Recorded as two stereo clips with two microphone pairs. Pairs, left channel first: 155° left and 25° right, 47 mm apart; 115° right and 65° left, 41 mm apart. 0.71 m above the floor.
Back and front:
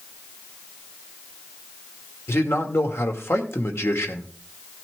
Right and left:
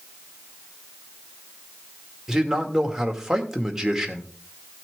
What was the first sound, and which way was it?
A man speaking, 140° left.